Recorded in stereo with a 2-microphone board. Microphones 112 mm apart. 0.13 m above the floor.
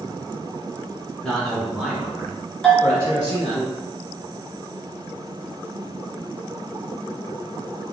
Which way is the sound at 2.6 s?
5° left (ahead or behind).